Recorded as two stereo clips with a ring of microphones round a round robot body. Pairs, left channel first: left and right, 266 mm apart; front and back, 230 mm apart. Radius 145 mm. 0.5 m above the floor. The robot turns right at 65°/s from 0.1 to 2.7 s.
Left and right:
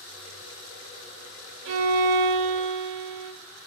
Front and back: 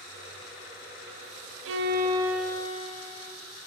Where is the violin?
140° right, 0.7 m; by 3.3 s 70° right, 0.7 m.